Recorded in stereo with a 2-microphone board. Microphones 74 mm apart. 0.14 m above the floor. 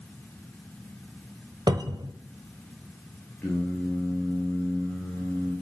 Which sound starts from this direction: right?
A cupboard door, at 1.7 s.